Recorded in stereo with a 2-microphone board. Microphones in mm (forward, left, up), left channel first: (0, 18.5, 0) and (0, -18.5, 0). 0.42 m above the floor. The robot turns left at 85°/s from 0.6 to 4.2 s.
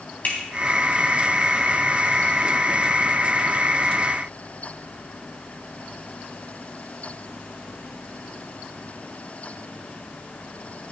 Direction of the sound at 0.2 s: 45° left (ahead or behind).